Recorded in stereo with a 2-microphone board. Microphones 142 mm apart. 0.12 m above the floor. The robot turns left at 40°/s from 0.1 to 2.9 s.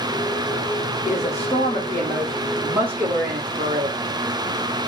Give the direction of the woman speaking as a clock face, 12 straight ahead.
10 o'clock.